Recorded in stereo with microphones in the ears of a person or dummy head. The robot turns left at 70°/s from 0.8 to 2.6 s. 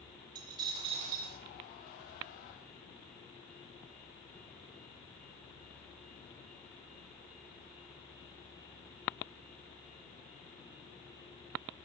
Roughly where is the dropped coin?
Ahead right.